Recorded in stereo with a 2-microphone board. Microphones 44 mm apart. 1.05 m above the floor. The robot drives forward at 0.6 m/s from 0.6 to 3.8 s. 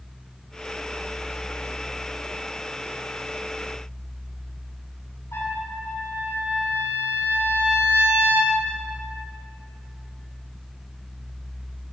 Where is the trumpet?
70° left (ahead or behind), 4.5 m.